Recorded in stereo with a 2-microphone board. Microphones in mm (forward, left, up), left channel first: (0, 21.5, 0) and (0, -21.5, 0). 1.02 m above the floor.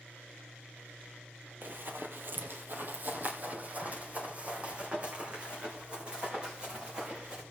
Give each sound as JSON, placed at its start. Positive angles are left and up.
{"t": 1.6, "sound": "running footsteps", "side_deg": -50, "distance_m": 1.5}